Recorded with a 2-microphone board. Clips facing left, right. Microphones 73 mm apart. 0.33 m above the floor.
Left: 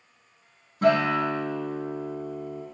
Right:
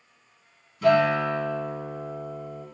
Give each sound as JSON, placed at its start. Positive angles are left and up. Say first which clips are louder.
{"t": 0.8, "sound": "a guitar", "louder": "right 1 dB", "side_deg": 45, "distance_m": 5.5}